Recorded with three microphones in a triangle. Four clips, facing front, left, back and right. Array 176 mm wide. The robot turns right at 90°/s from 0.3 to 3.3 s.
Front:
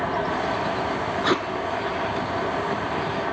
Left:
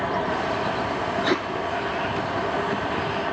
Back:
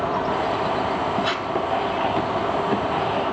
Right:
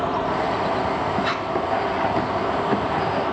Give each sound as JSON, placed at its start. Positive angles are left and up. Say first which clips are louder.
{"t": 1.2, "sound": "tape being pulled", "louder": "left 1 dB, front 2 dB", "azimuth_deg": 25, "distance_m": 0.6}